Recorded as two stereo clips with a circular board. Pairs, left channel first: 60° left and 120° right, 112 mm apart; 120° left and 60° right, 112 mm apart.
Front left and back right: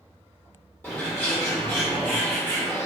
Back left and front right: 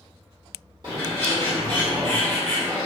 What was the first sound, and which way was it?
A bird, 10° right.